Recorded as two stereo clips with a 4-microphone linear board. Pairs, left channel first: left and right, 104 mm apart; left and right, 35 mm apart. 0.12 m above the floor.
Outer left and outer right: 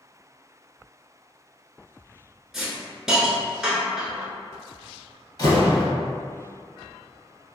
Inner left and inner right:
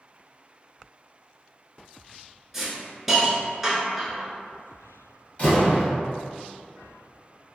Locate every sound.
2.5 s a hiss: 5° right (ahead or behind), 0.7 m
5.4 s a door slam: 40° left (ahead or behind), 1.8 m